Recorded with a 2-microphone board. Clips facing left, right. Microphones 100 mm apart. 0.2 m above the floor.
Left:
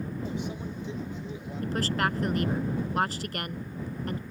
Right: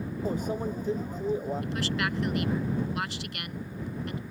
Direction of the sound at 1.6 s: 40° left (ahead or behind).